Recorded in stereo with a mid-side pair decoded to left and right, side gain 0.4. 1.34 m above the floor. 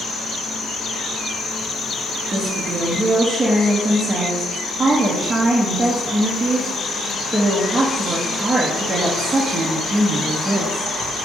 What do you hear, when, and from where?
0.0 s an insect: 65° left, 1.3 m
2.3 s a woman speaking: 20° right, 1.7 m